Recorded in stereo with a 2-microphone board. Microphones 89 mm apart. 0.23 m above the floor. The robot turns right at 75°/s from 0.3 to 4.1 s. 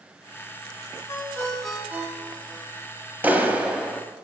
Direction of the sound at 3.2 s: 20° right (ahead or behind).